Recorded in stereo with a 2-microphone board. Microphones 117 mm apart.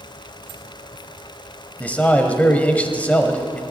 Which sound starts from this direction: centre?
A man speaking, at 1.8 s.